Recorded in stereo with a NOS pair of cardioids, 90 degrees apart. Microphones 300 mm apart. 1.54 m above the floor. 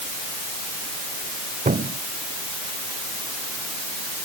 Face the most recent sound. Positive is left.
turn(degrees=-25)